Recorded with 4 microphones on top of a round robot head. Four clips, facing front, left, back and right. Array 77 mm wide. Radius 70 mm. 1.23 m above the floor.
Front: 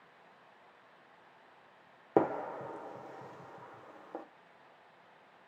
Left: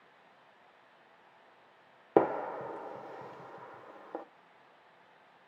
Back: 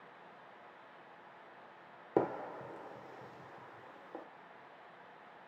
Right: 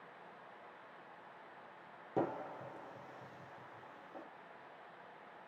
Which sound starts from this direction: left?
A gunshot, at 2.2 s.